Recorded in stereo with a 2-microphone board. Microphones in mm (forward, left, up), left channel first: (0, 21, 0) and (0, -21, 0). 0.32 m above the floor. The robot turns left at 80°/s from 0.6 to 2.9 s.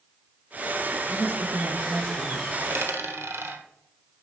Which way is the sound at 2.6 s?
80° right.